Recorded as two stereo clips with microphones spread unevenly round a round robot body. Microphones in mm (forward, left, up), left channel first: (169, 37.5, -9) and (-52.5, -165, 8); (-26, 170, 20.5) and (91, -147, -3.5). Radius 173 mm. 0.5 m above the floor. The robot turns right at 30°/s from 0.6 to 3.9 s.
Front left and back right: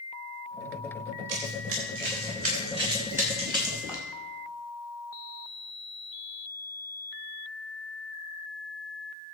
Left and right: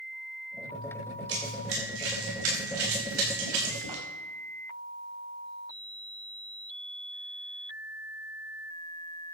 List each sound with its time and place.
1.3 s running footsteps: 130° right, 5.5 m; by 4.0 s 50° right, 8 m